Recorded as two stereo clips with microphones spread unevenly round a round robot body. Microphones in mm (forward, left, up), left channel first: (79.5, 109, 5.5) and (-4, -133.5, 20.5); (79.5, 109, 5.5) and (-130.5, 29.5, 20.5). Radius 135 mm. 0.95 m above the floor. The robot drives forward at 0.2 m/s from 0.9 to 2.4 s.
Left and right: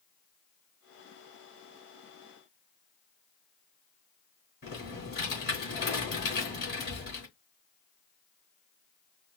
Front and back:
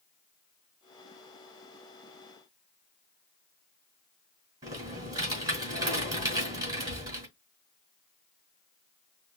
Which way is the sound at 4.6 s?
125° left.